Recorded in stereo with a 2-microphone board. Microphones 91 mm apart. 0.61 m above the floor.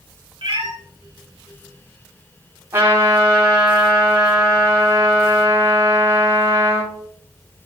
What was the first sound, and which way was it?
A cat meowing, 65° right (ahead or behind).